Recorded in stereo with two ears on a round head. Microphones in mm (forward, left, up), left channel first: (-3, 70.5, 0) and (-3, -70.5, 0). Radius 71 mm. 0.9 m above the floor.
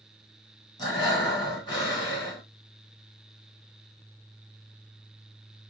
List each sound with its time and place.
0.8 s breathing: 25° left (ahead or behind), 2 m